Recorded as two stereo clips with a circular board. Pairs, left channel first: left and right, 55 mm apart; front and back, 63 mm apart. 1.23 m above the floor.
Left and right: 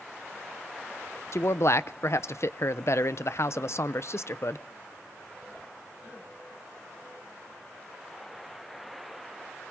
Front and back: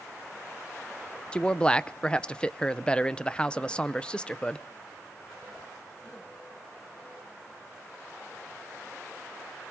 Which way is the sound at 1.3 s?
70° left.